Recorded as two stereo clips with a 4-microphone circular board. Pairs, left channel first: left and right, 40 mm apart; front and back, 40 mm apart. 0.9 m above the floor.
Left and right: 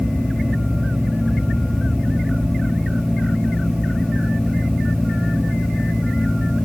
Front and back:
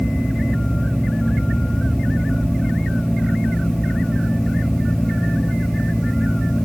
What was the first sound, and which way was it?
Only background noise.